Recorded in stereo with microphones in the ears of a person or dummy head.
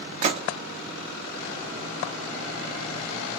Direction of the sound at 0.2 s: 35° right (ahead or behind).